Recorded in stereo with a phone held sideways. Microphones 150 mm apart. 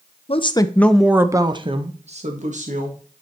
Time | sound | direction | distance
0.3 | a woman speaking | 40° left (ahead or behind) | 0.9 m